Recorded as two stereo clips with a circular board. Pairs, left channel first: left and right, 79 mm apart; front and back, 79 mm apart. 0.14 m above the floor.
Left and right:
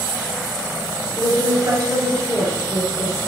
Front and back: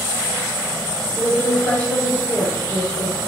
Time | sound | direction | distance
1.2 | a woman speaking | 55° right | 2.0 m